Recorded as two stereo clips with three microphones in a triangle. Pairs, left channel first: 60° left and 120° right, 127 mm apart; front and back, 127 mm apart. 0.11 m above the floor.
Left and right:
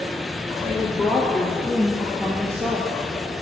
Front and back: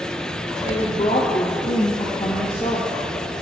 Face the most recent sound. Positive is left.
turn(degrees=-55)